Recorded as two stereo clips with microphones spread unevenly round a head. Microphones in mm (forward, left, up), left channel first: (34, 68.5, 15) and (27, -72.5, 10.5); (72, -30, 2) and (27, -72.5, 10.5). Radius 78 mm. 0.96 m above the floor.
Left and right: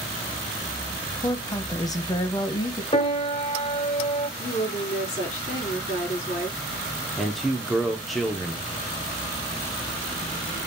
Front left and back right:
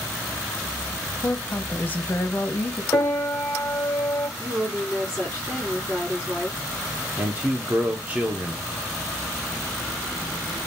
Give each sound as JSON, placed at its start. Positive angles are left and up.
{"t": 1.2, "sound": "a woman speaking", "azimuth_deg": 40, "distance_m": 0.7}
{"t": 2.9, "sound": "a piano", "azimuth_deg": 90, "distance_m": 0.6}
{"t": 4.4, "sound": "a woman speaking", "azimuth_deg": 135, "distance_m": 3.0}
{"t": 7.2, "sound": "a man speaking", "azimuth_deg": 180, "distance_m": 0.6}